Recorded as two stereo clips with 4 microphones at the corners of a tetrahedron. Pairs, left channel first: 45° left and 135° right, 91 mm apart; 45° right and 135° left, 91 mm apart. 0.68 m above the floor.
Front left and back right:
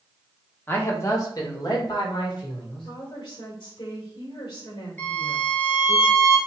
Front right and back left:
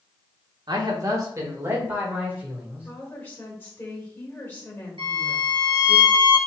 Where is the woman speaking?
25° left, 1.9 m.